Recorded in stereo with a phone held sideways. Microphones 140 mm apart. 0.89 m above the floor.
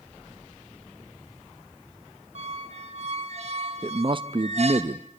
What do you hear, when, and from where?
2.4 s a squeak: 50° right (ahead or behind), 1.5 m
3.8 s a man speaking: 40° right (ahead or behind), 0.7 m